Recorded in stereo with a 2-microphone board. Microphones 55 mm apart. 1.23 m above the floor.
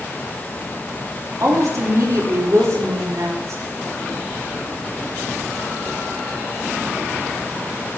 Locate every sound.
1.4 s a woman speaking: 75° right (ahead or behind), 2.5 m